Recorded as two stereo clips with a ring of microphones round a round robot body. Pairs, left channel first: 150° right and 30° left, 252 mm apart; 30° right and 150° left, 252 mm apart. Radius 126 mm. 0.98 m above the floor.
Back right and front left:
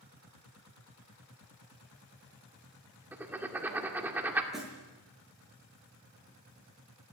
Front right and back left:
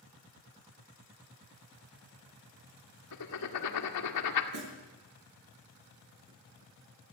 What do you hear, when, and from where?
3.1 s writing: 55° right, 2 m
4.5 s a snare drum: 120° left, 7.5 m